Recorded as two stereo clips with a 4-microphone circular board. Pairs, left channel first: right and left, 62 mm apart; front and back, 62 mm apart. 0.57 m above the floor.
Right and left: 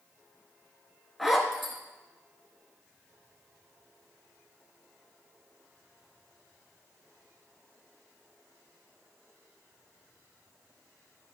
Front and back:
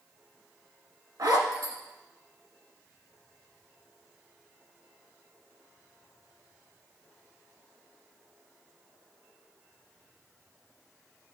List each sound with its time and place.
1.2 s a zipper: straight behind, 1.6 m